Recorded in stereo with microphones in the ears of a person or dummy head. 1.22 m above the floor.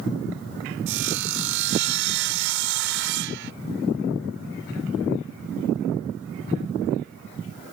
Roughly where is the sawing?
Right.